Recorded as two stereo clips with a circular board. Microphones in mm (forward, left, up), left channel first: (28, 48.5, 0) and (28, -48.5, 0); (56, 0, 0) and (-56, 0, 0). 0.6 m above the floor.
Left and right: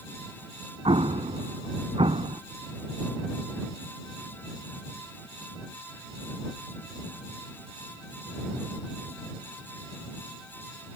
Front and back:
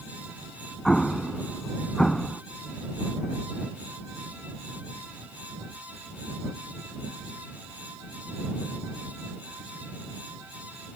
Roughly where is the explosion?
Right.